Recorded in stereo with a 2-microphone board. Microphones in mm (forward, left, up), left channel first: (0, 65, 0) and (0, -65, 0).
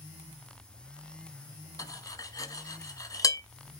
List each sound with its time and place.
1.8 s cutlery clinking: 25° left (ahead or behind), 0.8 m